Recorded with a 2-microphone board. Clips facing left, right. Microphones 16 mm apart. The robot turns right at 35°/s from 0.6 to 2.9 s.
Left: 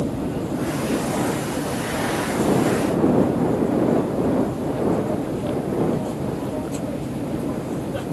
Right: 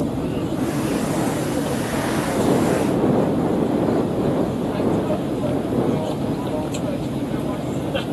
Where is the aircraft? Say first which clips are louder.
Right 2 dB; 145° right; by 8.1 s 65° right.